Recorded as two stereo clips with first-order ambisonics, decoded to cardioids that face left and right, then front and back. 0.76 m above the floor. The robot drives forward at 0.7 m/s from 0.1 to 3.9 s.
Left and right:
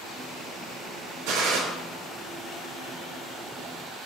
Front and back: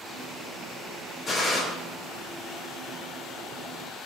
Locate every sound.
1.3 s a gunshot: 70° right, 3 m; by 1.6 s 75° right, 3 m